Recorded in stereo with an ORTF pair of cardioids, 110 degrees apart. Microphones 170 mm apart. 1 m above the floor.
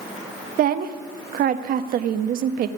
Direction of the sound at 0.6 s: 60° right.